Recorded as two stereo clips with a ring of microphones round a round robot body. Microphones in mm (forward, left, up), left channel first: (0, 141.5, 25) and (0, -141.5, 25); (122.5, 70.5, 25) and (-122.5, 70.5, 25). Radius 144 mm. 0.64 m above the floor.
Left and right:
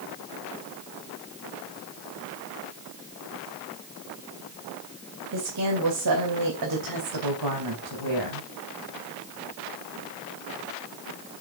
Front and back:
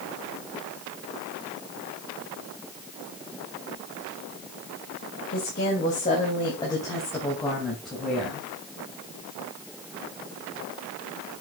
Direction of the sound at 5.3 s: 55° right.